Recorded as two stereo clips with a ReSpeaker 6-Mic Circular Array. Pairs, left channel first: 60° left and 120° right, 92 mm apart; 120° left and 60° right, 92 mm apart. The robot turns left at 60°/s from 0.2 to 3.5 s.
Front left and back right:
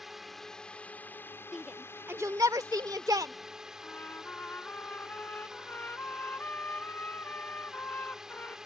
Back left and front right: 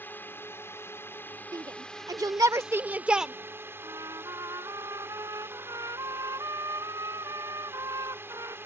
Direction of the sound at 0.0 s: 155° left.